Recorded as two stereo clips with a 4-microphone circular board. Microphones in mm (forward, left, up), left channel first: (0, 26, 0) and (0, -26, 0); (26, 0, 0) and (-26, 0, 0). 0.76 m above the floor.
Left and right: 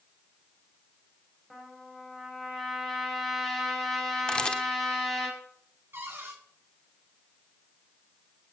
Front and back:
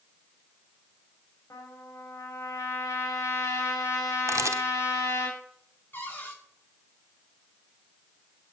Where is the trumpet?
Straight ahead, 5.5 m.